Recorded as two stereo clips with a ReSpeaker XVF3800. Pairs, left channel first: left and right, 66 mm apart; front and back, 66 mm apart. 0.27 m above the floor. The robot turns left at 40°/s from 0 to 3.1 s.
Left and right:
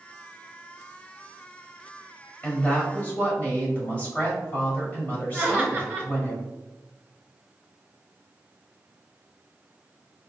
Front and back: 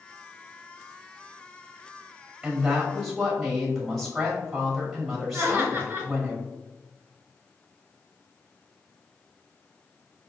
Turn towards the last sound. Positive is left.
turn(degrees=150)